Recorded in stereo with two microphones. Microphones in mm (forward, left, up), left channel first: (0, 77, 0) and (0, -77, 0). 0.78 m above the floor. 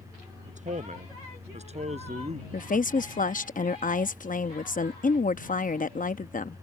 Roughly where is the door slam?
No door slam in this recording.